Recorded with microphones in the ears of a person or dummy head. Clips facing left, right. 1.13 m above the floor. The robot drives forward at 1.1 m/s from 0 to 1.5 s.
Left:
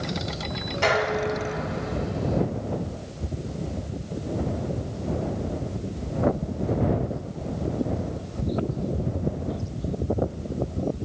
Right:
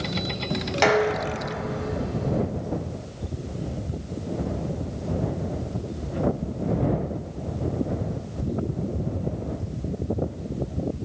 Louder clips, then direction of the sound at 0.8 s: Right 2 dB; 80° right.